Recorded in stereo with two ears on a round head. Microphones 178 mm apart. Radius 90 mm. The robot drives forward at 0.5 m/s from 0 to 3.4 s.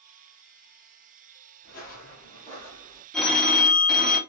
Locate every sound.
1.6 s footsteps: 45° left (ahead or behind), 1.4 m; by 3.0 s 20° left (ahead or behind), 3 m
3.1 s a phone ringing: 5° left (ahead or behind), 0.8 m